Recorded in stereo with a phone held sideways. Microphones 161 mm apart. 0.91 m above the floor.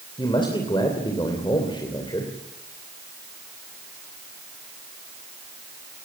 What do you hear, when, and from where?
0.2 s a man speaking: 30° left (ahead or behind), 3 m